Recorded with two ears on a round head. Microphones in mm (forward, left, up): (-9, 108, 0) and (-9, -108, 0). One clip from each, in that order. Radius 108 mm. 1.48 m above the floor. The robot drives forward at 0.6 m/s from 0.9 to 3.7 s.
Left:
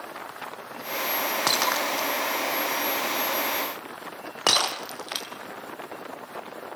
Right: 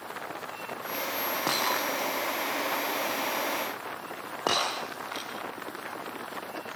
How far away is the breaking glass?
About 5 m.